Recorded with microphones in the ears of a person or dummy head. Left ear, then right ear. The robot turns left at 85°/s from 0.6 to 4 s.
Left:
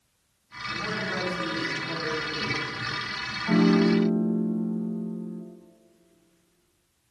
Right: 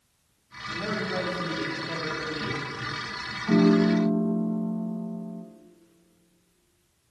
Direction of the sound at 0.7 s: Straight behind.